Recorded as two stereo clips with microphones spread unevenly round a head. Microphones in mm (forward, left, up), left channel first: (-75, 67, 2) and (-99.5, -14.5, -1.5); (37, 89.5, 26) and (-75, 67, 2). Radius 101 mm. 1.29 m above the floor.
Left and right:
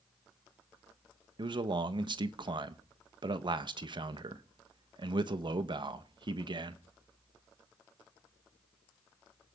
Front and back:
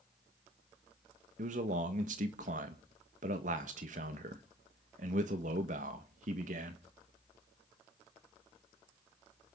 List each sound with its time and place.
1.4 s a man speaking: 135° right, 1.3 m